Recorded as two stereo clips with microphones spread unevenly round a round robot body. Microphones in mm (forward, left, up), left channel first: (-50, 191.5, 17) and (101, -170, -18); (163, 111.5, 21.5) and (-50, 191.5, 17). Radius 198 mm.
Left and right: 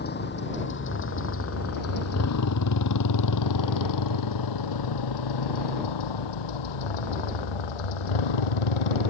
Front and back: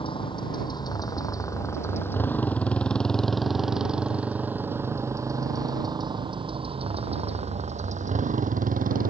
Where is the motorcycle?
45° left; by 9.1 s 105° left.